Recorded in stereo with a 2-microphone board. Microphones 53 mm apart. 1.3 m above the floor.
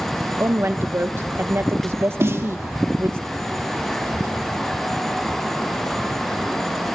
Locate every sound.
0.4 s a woman speaking: 50° right (ahead or behind), 0.9 m
2.2 s a snare drum: 55° right (ahead or behind), 2.5 m